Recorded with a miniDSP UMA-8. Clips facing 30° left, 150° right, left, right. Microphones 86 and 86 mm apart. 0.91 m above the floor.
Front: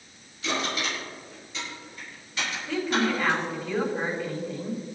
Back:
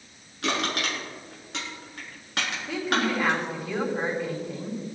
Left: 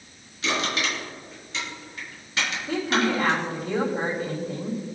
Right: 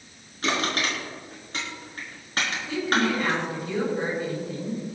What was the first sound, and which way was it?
Crushing, 135° right.